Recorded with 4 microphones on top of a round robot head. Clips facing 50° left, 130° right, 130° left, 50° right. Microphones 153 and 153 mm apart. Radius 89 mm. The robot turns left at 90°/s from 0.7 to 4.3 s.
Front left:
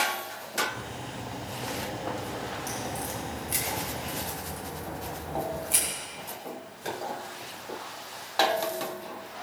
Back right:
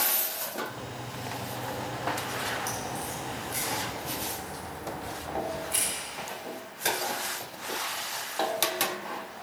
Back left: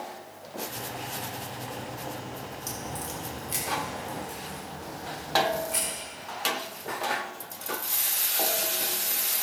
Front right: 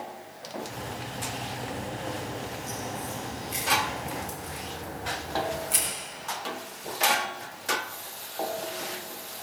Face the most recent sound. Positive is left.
turn(degrees=10)